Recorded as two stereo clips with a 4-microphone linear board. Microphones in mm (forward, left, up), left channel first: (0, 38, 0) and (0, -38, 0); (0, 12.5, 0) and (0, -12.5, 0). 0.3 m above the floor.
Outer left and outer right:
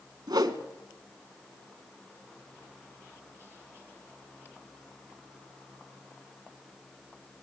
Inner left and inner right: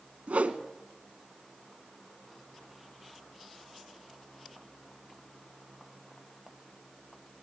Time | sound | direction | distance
0.3 | a whoosh | 70° right (ahead or behind) | 1.3 m